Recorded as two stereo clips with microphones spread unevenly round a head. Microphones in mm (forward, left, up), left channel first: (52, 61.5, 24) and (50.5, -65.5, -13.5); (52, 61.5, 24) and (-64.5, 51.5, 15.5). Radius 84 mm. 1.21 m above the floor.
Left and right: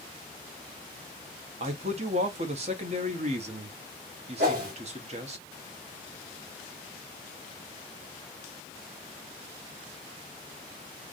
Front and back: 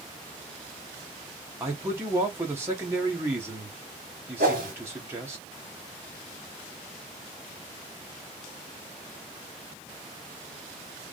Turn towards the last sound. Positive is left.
turn(degrees=-135)